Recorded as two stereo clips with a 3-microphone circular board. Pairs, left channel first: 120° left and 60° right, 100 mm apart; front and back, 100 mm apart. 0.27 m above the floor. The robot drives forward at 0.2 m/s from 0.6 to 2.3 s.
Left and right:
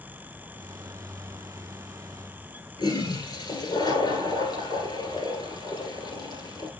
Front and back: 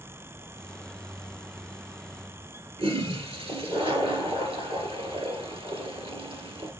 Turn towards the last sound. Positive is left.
turn(degrees=160)